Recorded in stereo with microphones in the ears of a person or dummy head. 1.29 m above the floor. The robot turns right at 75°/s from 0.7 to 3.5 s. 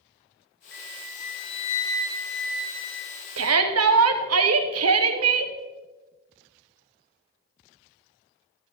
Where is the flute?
10° left, 1.9 m; by 3.3 s 160° right, 1.9 m.